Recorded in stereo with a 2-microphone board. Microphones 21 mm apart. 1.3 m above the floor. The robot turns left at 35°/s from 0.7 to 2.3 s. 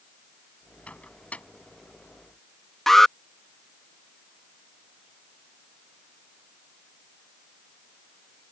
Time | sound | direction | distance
0.9 | a microwave | 65° left (ahead or behind) | ?
2.9 | an alarm | 15° left (ahead or behind) | ?